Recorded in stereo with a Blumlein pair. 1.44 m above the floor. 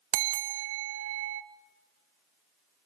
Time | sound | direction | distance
0.1 | a bell | 50° right | 0.6 m